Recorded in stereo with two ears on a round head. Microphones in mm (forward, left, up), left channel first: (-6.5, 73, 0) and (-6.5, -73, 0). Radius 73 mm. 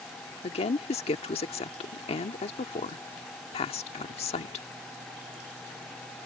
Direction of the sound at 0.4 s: 40° left (ahead or behind).